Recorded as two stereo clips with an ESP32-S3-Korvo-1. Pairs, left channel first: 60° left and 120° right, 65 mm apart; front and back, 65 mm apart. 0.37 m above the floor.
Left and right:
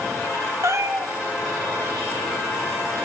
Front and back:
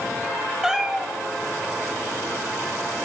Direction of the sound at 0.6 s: 100° right.